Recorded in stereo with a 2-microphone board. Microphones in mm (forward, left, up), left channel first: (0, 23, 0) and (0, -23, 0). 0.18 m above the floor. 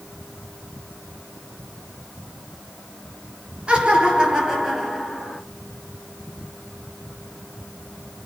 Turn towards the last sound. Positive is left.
turn(degrees=0)  # may be behind; listen again after turning